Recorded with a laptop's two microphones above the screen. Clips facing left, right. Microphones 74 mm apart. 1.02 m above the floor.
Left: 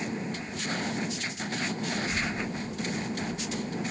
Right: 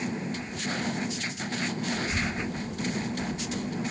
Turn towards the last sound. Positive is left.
turn(degrees=-80)